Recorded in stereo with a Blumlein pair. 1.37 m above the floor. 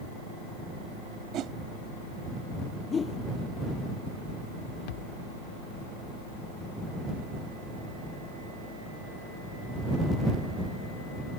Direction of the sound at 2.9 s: 20° left.